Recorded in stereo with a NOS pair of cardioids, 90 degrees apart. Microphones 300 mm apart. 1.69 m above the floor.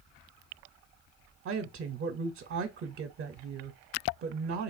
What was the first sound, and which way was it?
A woman speaking, 50° right.